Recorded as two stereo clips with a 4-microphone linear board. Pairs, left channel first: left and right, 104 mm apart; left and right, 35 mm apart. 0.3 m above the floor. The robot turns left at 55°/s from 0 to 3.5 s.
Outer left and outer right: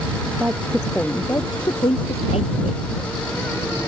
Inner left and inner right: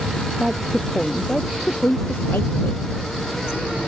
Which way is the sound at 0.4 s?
160° right.